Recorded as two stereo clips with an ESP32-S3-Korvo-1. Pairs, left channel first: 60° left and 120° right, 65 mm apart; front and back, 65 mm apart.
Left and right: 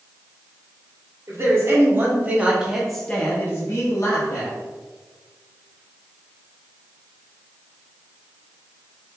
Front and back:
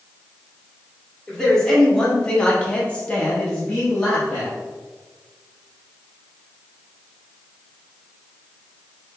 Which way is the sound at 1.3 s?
85° right.